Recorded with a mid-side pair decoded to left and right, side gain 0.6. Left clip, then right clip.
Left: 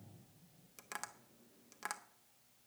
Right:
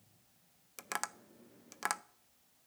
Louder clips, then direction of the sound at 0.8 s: Right 8 dB; 40° right.